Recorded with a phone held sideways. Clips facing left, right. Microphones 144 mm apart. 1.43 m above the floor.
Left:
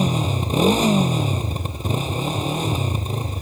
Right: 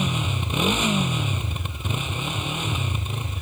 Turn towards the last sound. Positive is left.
turn(degrees=40)  # may be behind; listen again after turning